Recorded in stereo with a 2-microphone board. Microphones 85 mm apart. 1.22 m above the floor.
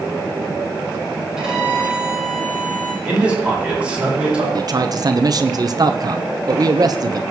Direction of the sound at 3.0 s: 15° right (ahead or behind).